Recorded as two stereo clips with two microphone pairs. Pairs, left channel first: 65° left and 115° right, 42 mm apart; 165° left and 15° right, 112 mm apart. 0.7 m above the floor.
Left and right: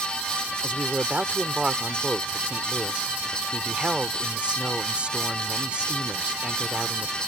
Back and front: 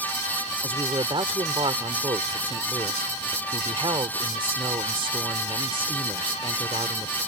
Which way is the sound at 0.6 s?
55° right.